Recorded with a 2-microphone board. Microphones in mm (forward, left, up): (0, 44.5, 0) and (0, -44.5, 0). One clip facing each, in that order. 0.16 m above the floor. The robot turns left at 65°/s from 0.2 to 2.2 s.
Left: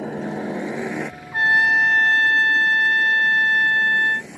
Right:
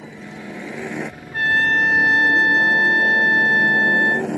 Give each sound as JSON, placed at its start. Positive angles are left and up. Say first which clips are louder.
{"t": 0.0, "sound": "a helicopter", "louder": "left 9 dB", "azimuth_deg": 55}
{"t": 1.3, "sound": "a trumpet", "louder": "left 1 dB", "azimuth_deg": 35}